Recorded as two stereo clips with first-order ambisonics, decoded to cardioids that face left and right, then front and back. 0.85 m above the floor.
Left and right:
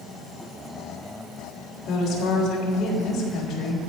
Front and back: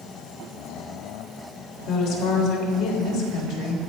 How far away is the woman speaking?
About 3.5 m.